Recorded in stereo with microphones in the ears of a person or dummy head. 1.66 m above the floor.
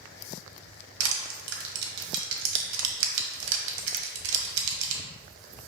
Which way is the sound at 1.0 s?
65° right (ahead or behind).